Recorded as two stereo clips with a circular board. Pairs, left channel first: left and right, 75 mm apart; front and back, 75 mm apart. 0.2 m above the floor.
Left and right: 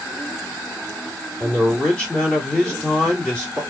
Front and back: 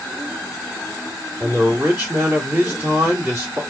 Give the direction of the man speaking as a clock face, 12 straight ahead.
7 o'clock.